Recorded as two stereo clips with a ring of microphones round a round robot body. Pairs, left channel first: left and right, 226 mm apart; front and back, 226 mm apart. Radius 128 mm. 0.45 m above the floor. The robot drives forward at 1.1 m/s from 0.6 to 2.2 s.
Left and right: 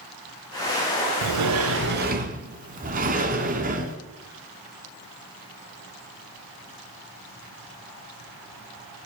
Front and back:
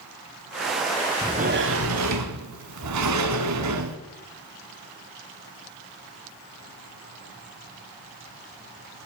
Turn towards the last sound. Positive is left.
turn(degrees=-150)